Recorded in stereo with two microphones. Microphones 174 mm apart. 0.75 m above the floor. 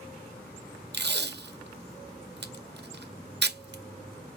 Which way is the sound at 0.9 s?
75° right (ahead or behind).